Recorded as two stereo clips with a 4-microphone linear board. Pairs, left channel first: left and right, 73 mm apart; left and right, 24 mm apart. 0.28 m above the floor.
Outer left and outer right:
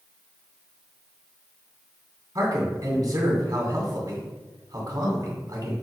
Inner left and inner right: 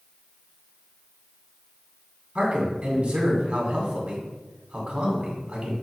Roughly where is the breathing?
No breathing in this recording.